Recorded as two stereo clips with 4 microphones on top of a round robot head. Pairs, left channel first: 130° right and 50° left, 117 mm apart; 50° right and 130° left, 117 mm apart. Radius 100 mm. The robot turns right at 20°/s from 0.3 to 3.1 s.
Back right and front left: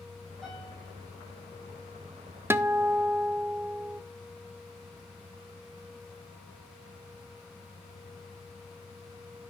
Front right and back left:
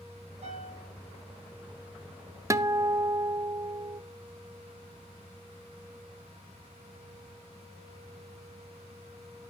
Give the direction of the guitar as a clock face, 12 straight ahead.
9 o'clock.